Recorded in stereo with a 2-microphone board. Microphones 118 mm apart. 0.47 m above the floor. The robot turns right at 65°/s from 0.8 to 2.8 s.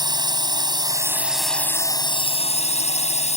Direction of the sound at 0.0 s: 40° right.